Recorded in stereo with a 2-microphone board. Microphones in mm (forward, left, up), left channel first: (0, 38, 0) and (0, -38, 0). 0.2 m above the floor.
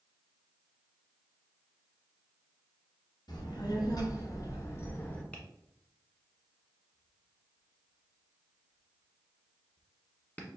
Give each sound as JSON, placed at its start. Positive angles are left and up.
{"t": 3.3, "sound": "a child speaking", "side_deg": 70, "distance_m": 1.5}
{"t": 5.3, "sound": "tapping", "side_deg": 20, "distance_m": 1.1}